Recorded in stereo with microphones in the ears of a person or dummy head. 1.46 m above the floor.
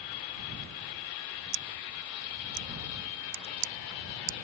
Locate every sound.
1.5 s scissors: 60° right (ahead or behind)